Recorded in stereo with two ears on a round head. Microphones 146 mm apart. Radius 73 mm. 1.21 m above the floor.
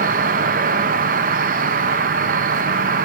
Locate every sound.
0.0 s an insect: 50° right (ahead or behind), 0.9 m